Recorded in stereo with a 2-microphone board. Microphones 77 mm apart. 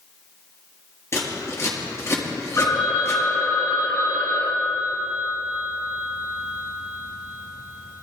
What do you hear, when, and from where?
1.1 s scissors: 35° left (ahead or behind), 4 m
2.6 s a phone ringing: 40° left (ahead or behind), 3 m